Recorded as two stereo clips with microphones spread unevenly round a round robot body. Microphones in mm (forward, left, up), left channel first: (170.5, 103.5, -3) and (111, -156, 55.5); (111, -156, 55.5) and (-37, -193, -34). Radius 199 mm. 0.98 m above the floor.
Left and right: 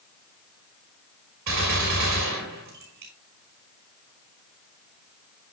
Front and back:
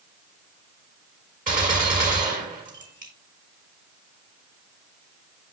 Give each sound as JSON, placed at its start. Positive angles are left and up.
{"t": 1.5, "sound": "a gunshot", "azimuth_deg": -155, "distance_m": 5.0}